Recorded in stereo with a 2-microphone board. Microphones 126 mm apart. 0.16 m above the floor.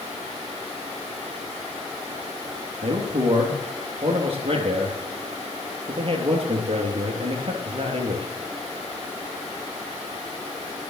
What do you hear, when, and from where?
2.8 s a man speaking: 50° right (ahead or behind), 3 m